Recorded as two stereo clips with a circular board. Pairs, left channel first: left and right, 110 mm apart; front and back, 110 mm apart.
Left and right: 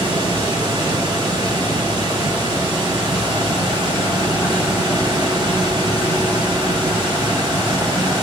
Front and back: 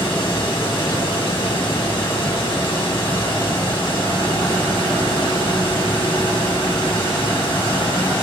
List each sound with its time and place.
0.0 s running water: 45° right, 1.8 m